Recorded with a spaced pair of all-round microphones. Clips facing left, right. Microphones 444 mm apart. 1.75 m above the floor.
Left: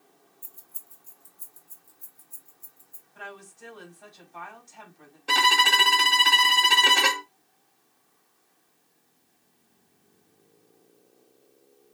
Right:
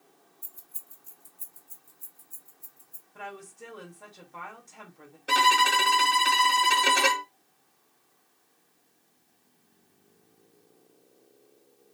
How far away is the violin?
About 0.9 m.